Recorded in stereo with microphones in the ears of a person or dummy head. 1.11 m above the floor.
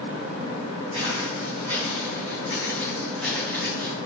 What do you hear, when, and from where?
0.9 s footsteps: 25° right (ahead or behind), 4 m; by 3.9 s centre (ahead or behind), 5 m